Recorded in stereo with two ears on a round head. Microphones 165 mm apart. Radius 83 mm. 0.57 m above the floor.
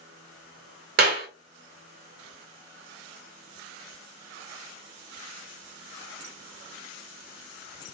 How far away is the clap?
About 1.5 m.